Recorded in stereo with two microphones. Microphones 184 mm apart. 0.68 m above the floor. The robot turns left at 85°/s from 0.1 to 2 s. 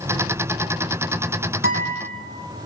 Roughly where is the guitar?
Behind right.